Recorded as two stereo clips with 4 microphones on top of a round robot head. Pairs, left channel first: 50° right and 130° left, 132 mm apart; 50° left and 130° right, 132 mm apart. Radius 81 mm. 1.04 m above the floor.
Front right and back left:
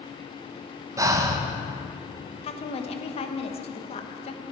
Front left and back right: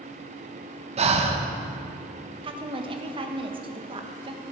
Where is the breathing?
165° right, 1.2 m.